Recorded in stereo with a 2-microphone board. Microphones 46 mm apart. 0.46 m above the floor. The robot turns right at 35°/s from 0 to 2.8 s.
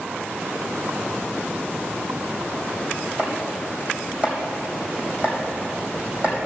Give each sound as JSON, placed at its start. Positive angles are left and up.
{"t": 3.2, "sound": "chopping", "side_deg": -35, "distance_m": 3.0}